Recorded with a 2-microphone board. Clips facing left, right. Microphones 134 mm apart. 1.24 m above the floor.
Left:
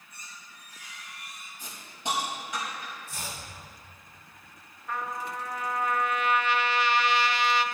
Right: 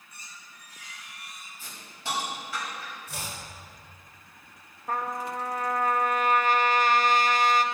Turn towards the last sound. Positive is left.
turn(degrees=-45)  # may be behind; listen again after turning